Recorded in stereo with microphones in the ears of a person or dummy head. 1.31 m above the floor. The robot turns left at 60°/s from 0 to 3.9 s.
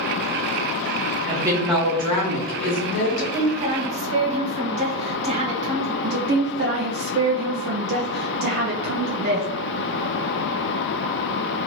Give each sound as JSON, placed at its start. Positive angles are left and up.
{"t": 1.3, "sound": "a woman speaking", "azimuth_deg": -160, "distance_m": 1.2}
{"t": 3.1, "sound": "a woman speaking", "azimuth_deg": 5, "distance_m": 1.7}
{"t": 6.0, "sound": "a woman speaking", "side_deg": -45, "distance_m": 0.5}